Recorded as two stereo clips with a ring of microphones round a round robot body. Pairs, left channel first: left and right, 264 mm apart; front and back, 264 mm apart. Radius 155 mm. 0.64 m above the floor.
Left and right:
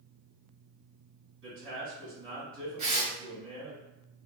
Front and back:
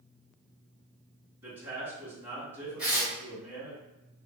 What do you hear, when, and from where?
1.4 s a man speaking: 100° right, 1.9 m
2.8 s tearing paper: 95° right, 1.5 m